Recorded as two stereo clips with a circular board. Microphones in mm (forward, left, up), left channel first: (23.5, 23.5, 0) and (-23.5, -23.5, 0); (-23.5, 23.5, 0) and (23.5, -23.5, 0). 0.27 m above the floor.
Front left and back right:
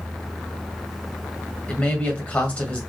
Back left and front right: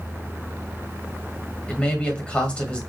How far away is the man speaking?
About 1.6 m.